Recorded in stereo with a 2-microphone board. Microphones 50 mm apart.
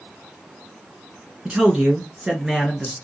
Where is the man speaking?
15° right (ahead or behind), 1.2 m; by 3.0 s 5° right (ahead or behind), 1.7 m.